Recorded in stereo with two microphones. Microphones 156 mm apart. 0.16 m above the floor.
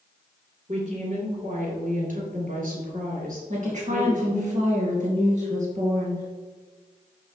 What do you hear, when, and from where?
0.7 s a woman speaking: 55° right (ahead or behind), 3.5 m; by 4.5 s 65° right (ahead or behind), 4 m
3.5 s a woman speaking: 50° right (ahead or behind), 2.5 m